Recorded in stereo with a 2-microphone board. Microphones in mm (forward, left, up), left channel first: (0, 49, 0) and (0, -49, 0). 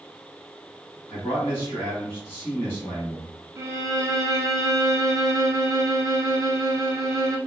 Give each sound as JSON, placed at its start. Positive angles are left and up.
{"t": 1.1, "sound": "a man speaking", "side_deg": 25, "distance_m": 1.4}
{"t": 3.6, "sound": "a violin", "side_deg": -35, "distance_m": 0.5}